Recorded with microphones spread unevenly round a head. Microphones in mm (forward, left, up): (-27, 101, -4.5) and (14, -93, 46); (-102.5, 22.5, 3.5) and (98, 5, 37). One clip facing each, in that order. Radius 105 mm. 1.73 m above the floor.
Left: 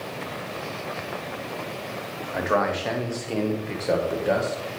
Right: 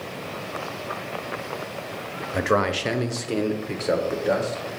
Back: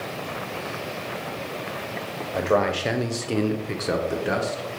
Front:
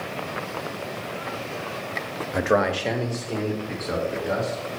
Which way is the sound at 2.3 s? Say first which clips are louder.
Right 2 dB, even; 55° right.